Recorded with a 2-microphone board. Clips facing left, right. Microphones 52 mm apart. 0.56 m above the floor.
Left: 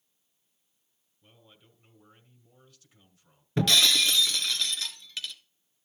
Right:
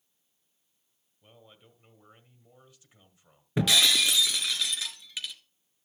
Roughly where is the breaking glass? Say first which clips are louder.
Even; centre.